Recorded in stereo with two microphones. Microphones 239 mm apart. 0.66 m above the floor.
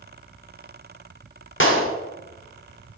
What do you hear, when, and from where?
1.6 s a clap: 55° left (ahead or behind), 1.6 m